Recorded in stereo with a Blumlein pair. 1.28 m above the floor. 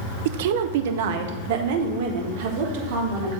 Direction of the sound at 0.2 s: 55° right.